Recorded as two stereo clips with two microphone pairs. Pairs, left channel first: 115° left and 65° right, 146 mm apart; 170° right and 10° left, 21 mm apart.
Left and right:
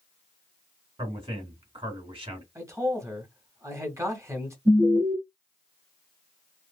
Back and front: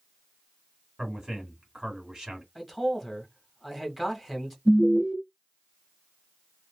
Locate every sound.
1.0 s a man speaking: 35° right, 2 m
2.5 s a man speaking: 65° right, 1.1 m
4.7 s an alarm: 30° right, 2 m